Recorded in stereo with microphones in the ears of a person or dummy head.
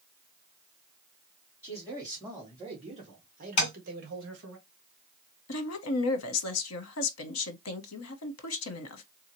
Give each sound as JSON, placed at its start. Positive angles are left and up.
{"t": 1.6, "sound": "a man speaking", "side_deg": -15, "distance_m": 2.0}
{"t": 3.6, "sound": "tapping", "side_deg": 40, "distance_m": 1.9}
{"t": 5.5, "sound": "a woman speaking", "side_deg": 80, "distance_m": 1.0}